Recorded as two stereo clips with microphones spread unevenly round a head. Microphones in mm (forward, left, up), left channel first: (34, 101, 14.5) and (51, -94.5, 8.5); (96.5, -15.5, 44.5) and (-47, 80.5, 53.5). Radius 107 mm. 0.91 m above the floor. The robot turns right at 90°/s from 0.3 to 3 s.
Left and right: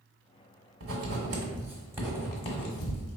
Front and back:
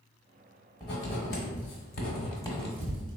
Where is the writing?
110° right, 1.2 m; by 3.2 s 85° left, 1.2 m.